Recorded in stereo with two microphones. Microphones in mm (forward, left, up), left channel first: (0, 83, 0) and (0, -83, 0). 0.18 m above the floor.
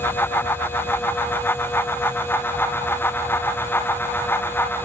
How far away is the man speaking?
I don't hear a man speaking.